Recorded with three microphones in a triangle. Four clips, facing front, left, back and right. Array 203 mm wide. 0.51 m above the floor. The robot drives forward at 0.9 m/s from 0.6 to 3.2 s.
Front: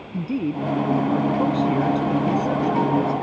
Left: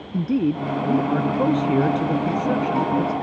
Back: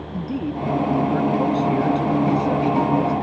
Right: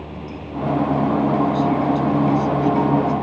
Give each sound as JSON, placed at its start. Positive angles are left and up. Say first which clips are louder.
{"t": 0.1, "sound": "a man speaking", "louder": "left 10 dB, front 2 dB", "azimuth_deg": 75}